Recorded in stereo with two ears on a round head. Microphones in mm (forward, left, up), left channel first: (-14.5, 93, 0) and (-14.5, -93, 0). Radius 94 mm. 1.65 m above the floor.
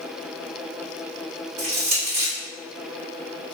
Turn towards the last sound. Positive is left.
turn(degrees=-85)